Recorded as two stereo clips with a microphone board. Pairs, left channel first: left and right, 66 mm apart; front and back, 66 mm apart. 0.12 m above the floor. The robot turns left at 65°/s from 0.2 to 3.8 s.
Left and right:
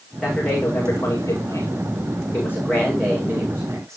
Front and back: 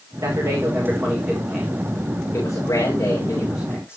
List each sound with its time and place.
0.2 s a man speaking: 175° right, 7.5 m; by 4.0 s 50° right, 7.5 m